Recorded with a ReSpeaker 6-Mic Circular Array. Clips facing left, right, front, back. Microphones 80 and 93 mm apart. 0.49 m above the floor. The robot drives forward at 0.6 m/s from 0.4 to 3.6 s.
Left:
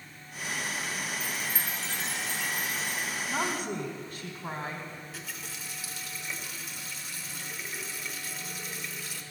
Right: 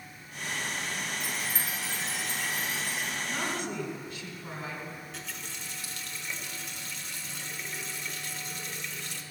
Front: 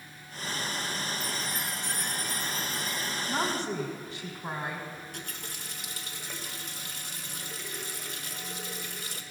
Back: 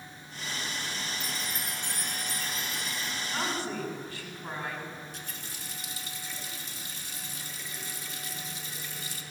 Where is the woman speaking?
55° left, 1.6 m; by 4.9 s 65° left, 1.5 m.